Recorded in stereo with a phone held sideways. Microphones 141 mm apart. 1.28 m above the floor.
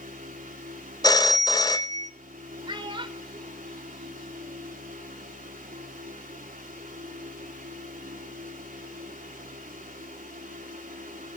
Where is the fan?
80° right, 3.5 m.